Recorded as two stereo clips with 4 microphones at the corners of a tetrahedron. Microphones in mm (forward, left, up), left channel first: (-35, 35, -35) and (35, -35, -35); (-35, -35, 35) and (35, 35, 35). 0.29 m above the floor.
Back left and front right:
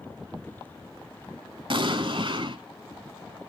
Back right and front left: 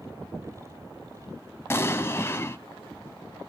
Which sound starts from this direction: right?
An explosion, at 1.7 s.